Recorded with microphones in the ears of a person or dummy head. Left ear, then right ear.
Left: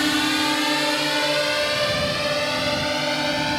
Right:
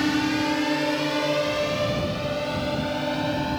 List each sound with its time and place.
0.0 s a drone: 45° left (ahead or behind); by 3.6 s 75° left (ahead or behind)